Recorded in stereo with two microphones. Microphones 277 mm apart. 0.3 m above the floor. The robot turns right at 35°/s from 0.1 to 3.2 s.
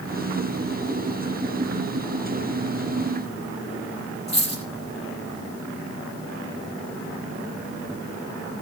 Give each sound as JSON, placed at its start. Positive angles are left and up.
{"t": 4.3, "sound": "a dropped coin", "side_deg": 75, "distance_m": 4.5}